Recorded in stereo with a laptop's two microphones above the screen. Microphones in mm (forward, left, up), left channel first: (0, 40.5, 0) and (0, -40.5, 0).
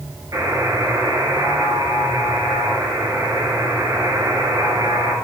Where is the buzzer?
45° right (ahead or behind), 7.5 m.